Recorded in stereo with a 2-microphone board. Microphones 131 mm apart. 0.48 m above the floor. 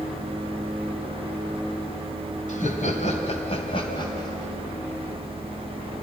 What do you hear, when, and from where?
2.5 s laughter: 70° left (ahead or behind), 3 m; by 4.5 s 25° left (ahead or behind), 3 m